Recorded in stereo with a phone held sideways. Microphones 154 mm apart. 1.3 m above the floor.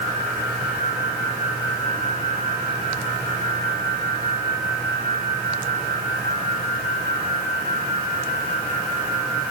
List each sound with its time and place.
Only background noise.